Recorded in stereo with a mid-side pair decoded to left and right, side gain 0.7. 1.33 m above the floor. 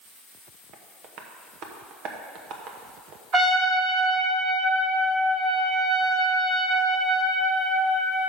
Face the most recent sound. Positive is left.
turn(degrees=-20)